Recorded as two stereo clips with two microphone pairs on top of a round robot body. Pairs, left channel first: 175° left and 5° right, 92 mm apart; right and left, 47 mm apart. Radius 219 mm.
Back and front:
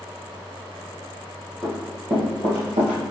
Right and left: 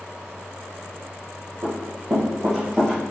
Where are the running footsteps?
65° left, 1.6 m; by 3.0 s 5° left, 1.7 m.